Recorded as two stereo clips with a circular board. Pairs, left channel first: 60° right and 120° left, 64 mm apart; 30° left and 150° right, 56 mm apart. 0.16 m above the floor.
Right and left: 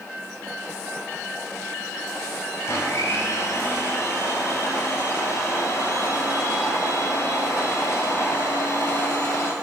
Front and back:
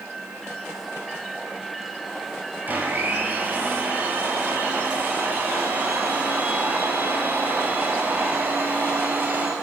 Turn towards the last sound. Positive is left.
turn(degrees=-95)